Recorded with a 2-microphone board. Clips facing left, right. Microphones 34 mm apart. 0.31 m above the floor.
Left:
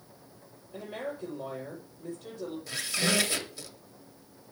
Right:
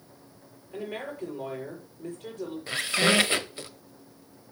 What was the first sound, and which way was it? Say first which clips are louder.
A woman speaking: right 2 dB; 70° right (ahead or behind).